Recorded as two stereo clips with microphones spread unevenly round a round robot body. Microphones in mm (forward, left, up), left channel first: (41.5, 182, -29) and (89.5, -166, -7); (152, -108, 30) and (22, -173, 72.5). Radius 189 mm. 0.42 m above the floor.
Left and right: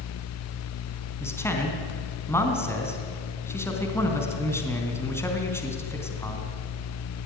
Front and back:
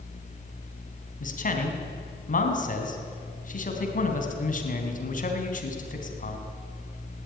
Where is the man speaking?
15° left, 3.5 m.